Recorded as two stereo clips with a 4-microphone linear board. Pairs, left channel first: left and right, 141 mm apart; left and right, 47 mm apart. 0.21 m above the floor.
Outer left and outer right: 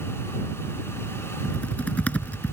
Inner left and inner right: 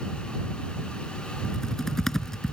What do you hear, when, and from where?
1.4 s typing on a keyboard: 10° left (ahead or behind)